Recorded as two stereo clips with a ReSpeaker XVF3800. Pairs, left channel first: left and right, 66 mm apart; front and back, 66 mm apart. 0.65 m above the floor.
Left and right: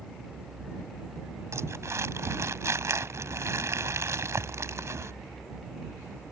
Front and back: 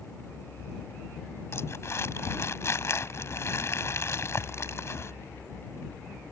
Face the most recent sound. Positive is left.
turn(degrees=-45)